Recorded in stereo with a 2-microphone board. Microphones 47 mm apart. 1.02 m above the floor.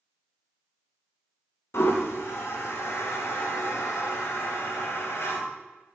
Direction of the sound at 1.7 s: 60° left (ahead or behind).